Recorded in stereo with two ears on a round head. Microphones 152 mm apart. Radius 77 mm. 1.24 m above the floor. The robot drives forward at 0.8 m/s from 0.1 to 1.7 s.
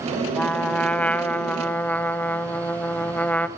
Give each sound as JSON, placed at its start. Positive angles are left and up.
{"t": 0.3, "sound": "a trumpet", "side_deg": 5, "distance_m": 1.5}